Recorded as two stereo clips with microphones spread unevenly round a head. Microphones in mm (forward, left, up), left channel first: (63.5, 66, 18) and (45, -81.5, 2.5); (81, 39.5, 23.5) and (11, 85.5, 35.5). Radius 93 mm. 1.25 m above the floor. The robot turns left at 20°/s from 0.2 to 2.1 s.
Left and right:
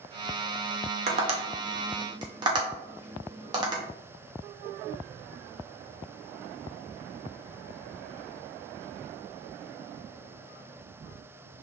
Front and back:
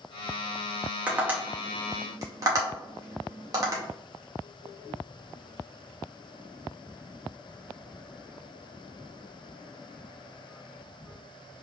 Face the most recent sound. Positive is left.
turn(degrees=-155)